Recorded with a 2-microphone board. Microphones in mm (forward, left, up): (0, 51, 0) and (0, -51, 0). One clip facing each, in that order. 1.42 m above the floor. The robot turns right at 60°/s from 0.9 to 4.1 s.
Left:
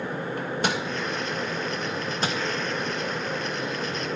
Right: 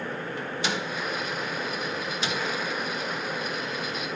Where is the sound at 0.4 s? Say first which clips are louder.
Left 4 dB; 50° left (ahead or behind), 1.1 m.